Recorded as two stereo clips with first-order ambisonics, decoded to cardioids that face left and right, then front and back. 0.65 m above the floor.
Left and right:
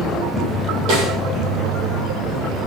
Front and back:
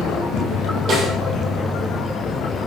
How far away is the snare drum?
About 9.5 m.